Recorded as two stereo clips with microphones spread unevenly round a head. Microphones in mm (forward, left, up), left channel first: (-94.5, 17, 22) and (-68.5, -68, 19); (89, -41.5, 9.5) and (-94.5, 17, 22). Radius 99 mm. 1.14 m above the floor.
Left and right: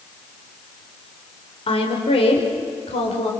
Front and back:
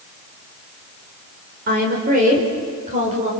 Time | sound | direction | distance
1.7 | a woman speaking | 115° left | 4.5 m